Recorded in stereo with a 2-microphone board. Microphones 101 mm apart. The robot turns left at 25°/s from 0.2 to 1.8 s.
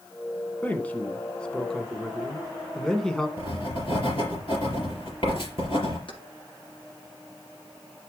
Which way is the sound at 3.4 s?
65° left (ahead or behind).